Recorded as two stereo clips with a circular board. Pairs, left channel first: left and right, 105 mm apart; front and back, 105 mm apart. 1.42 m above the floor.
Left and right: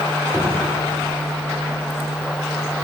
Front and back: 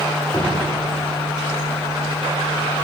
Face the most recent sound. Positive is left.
turn(degrees=-30)